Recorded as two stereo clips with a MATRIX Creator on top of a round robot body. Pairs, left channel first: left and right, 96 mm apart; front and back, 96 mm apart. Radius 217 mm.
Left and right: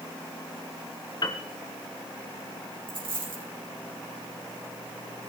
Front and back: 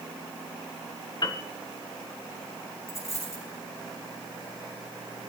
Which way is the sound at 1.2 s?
45° left.